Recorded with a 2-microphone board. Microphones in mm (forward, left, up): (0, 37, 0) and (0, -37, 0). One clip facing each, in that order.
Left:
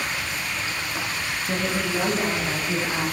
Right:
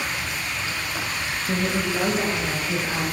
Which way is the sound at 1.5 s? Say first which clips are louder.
Right 1 dB; 5° right (ahead or behind).